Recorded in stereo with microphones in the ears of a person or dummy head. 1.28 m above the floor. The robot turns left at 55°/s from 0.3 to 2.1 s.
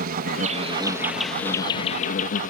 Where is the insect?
130° right; by 2.5 s 135° left.